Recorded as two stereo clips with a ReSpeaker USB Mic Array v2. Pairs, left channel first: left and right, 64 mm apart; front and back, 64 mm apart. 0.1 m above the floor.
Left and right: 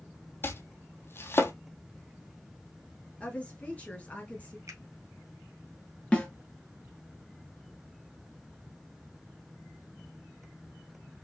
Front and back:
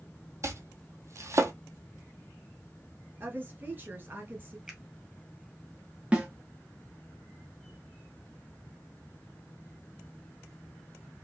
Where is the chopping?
140° left, 0.8 m.